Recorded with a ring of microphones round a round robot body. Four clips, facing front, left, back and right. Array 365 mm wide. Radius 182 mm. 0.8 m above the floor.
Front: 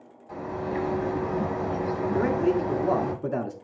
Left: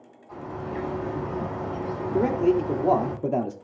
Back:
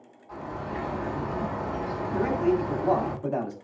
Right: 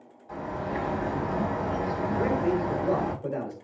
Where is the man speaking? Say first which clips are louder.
Left 6 dB, even; 65° left, 1.9 m.